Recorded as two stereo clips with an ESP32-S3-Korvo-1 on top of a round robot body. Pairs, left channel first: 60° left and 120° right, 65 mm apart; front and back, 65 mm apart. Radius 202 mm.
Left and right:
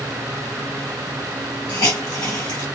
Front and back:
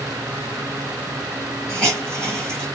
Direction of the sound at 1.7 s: 80° left.